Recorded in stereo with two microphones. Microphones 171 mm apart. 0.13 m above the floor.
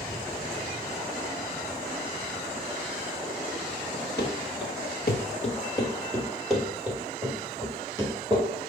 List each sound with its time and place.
4.2 s running footsteps: 85° left, 1.7 m; by 8.5 s 25° right (ahead or behind), 4 m